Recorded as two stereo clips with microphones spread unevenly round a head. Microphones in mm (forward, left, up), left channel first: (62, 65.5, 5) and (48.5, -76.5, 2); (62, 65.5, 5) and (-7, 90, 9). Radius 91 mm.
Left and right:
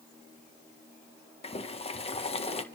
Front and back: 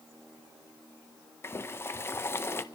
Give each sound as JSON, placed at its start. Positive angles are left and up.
{"t": 1.4, "sound": "boiling", "azimuth_deg": 35, "distance_m": 1.3}